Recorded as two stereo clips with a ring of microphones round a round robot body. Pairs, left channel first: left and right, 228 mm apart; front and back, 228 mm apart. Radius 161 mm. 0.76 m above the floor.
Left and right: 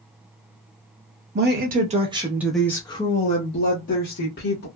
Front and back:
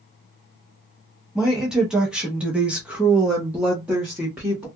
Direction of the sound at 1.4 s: 95° right.